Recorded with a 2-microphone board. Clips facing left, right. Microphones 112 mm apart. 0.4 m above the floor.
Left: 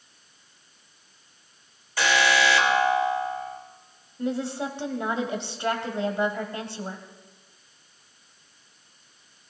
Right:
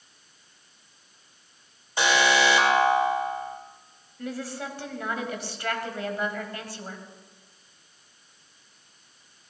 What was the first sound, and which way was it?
An alarm, 20° right (ahead or behind).